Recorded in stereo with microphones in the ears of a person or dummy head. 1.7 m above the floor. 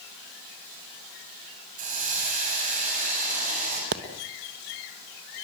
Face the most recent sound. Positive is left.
turn(degrees=-60)  # may be behind; listen again after turning